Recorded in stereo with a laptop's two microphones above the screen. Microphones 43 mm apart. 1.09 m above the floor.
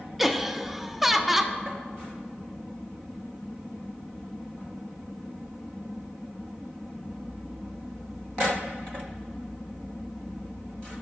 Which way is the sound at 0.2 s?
5° right (ahead or behind).